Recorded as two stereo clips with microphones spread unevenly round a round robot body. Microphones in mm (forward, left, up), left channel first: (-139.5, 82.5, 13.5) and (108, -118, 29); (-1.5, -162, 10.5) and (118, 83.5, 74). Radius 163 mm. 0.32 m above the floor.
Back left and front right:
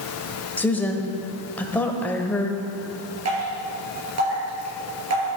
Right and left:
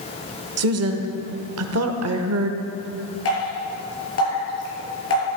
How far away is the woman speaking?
About 1.1 m.